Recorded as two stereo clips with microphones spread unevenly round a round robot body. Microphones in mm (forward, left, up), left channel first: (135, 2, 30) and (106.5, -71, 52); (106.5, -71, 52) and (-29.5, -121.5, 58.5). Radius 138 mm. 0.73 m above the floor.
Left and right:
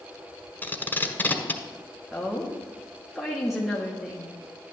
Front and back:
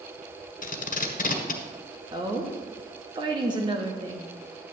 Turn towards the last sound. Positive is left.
turn(degrees=145)